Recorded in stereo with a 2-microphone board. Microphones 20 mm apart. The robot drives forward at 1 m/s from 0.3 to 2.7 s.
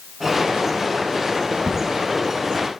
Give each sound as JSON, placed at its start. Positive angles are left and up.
{"t": 1.7, "sound": "a crack", "side_deg": -45, "distance_m": 1.1}